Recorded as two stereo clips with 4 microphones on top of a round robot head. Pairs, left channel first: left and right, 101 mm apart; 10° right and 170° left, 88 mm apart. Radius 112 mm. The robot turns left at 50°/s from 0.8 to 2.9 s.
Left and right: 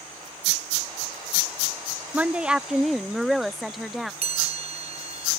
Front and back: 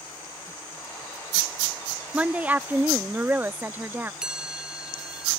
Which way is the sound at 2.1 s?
140° right.